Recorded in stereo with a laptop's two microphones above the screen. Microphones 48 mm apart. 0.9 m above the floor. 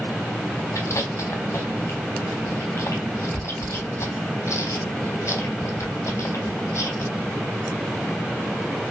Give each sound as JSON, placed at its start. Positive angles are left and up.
{"t": 0.8, "sound": "chewing", "side_deg": 70, "distance_m": 4.0}